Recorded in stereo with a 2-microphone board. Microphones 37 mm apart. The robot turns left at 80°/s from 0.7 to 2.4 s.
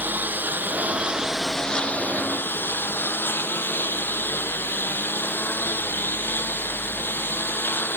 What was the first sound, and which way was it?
A lawn mower, 120° right.